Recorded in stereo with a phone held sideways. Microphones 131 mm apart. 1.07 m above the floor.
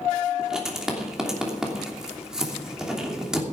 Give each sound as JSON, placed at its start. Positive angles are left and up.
{"t": 0.4, "sound": "writing", "side_deg": -5, "distance_m": 3.0}